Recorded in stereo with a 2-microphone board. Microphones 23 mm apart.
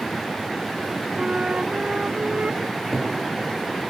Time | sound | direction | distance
1.2 | a flute | 55° right (ahead or behind) | 0.8 m
2.7 | a cupboard door | 5° right (ahead or behind) | 7 m